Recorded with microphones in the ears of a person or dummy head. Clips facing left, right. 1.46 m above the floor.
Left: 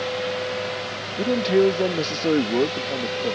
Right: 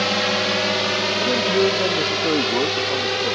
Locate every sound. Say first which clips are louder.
0.0 s a drone: right 3 dB; 70° right (ahead or behind)
1.2 s a man speaking: left 2 dB; 10° left (ahead or behind)